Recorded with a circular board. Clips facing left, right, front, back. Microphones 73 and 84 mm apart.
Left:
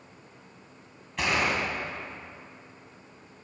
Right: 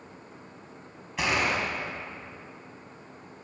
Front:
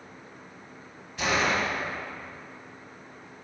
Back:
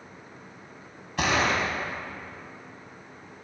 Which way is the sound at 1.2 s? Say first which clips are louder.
Even, back 1 dB; 175° right.